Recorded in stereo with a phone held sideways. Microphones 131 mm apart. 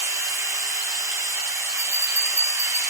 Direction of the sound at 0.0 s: 25° right (ahead or behind).